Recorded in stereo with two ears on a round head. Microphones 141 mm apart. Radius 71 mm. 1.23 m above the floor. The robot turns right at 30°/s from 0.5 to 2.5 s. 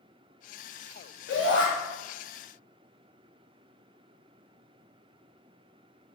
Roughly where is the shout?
Left.